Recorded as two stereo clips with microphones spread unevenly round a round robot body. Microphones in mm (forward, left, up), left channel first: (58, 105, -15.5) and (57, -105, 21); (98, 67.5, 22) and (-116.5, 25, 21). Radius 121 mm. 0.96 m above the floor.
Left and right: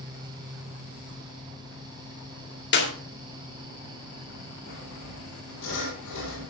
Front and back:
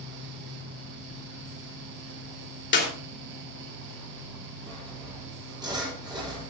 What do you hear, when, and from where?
2.7 s a clap: 50° left, 3 m
4.7 s sawing: 120° left, 7 m